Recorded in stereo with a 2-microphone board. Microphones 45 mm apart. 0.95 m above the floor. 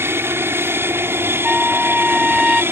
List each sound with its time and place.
0.0 s an aircraft: 60° right (ahead or behind); by 2.7 s 55° right (ahead or behind)
1.4 s a trumpet: 10° right (ahead or behind)